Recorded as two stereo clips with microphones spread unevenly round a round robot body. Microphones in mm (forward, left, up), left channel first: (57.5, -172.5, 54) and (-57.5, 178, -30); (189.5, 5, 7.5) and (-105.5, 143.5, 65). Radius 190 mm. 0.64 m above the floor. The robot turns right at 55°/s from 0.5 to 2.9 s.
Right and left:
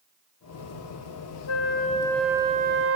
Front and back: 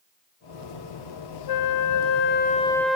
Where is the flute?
20° right, 0.8 m; by 3.0 s 60° left, 0.8 m.